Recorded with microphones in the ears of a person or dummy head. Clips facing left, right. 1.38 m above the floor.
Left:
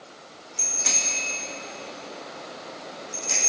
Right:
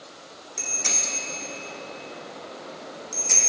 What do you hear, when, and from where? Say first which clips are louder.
0.6 s a bicycle bell: even; 45° right (ahead or behind), 2.5 m; by 3.4 s 80° right, 3.5 m